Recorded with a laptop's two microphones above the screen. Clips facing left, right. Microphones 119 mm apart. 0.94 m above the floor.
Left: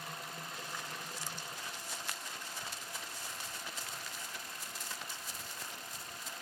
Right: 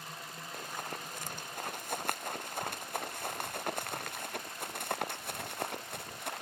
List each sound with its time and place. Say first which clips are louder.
0.5 s running footsteps: right 8 dB; 50° right (ahead or behind); by 6.4 s 65° right (ahead or behind)